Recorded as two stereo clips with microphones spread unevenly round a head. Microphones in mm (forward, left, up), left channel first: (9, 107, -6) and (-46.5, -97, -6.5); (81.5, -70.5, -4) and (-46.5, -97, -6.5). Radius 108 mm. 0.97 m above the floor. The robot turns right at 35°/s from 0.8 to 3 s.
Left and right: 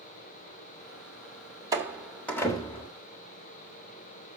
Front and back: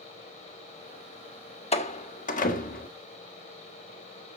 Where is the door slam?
30° right, 1.4 m; by 2.9 s 10° left, 1.4 m.